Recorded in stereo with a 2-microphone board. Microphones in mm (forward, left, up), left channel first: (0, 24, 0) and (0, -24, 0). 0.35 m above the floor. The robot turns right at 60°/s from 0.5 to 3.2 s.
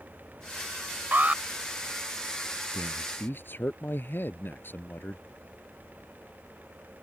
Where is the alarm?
40° right (ahead or behind); by 1.4 s 25° right (ahead or behind).